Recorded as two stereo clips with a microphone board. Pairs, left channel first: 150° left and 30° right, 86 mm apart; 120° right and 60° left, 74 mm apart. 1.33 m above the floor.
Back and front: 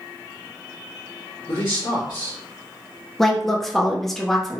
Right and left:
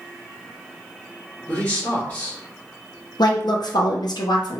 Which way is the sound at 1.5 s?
175° left.